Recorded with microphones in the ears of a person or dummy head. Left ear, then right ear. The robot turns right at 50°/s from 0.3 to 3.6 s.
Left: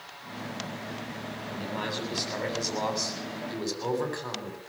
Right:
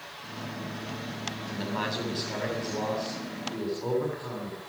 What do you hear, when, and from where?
1.5 s a man speaking: 30° right, 7.5 m; by 4.6 s 80° left, 7.5 m